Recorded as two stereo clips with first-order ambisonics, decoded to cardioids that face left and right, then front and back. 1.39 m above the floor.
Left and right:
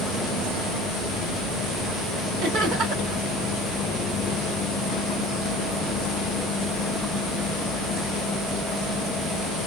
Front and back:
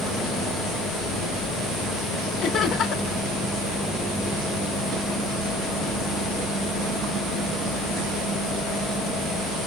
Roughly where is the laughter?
Ahead right.